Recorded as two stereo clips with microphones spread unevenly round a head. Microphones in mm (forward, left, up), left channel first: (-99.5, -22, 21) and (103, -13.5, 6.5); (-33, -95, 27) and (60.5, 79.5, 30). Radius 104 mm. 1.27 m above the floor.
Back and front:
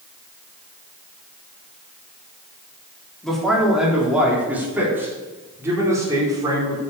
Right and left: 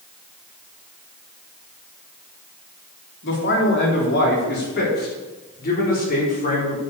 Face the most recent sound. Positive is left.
turn(degrees=-70)